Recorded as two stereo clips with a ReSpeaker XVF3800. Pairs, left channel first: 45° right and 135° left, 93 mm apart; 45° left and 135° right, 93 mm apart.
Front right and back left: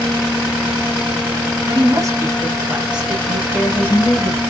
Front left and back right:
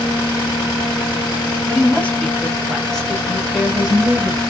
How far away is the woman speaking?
About 1.3 m.